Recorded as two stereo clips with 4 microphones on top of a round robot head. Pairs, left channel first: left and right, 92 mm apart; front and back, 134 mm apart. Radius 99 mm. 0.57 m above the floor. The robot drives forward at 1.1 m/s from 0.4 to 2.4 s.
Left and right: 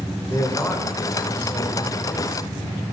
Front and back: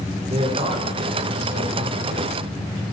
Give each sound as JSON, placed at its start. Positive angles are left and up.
{"t": 0.3, "sound": "a man speaking", "azimuth_deg": 145, "distance_m": 2.0}